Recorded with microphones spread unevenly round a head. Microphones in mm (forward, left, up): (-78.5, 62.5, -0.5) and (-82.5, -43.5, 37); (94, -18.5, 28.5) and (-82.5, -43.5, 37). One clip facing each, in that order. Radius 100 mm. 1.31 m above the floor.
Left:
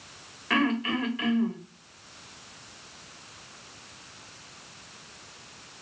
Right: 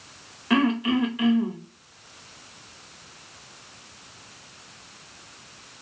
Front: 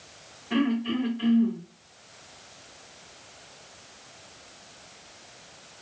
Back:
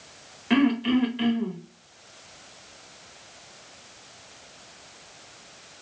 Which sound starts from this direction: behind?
Throat clearing, at 0.5 s.